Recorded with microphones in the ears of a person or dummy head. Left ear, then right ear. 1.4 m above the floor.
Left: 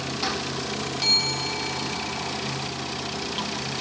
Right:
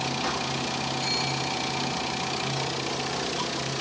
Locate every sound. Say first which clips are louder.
0.0 s running water: even; 65° left (ahead or behind), 1.9 m
1.0 s a bell: left 9 dB; 45° left (ahead or behind), 1.1 m